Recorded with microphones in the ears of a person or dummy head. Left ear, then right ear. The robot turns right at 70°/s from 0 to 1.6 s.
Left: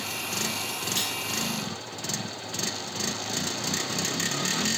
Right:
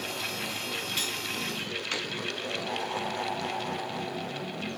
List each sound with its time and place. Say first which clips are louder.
1.0 s cutlery clinking: left 2 dB; 25° left (ahead or behind), 2.5 m; by 1.2 s 40° left (ahead or behind), 2.5 m